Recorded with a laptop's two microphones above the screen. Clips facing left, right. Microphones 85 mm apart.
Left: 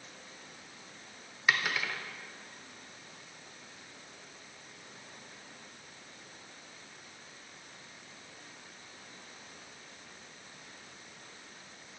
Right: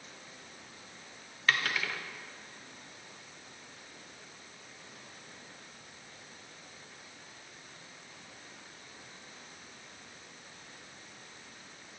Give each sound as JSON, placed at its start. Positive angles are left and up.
{"t": 1.5, "sound": "a dropped coin", "side_deg": 10, "distance_m": 0.9}